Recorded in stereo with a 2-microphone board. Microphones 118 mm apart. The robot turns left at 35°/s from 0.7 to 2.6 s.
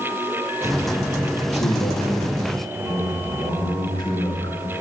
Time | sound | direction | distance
1.5 | a man speaking | 75° left | 6 m